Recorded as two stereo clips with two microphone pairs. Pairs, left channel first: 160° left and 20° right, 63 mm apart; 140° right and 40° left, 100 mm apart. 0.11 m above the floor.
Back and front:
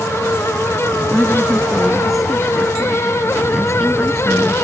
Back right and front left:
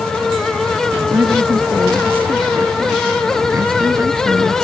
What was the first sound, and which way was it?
A woman speaking, 70° left.